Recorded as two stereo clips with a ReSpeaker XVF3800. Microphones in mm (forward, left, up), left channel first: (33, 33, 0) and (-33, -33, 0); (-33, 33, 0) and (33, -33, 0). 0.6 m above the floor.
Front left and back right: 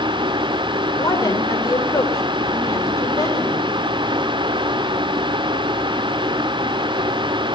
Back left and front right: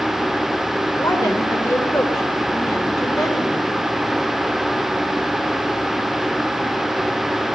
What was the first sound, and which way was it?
A woman speaking, 90° left.